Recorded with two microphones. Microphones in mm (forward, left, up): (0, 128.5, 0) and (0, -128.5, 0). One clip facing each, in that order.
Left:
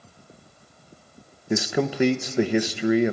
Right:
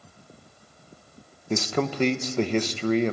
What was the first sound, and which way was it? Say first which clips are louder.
A man speaking: left 2 dB; 10° left (ahead or behind).